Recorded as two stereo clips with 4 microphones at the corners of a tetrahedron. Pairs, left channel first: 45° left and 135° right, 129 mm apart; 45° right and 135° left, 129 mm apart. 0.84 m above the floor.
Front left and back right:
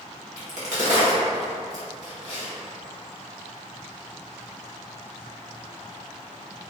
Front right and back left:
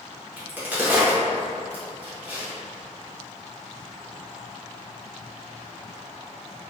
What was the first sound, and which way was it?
A crack, 150° right.